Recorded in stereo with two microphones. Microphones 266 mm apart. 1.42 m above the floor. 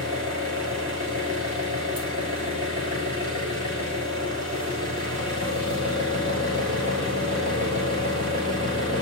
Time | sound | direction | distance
0.0 | an engine running | 30° right (ahead or behind) | 3 m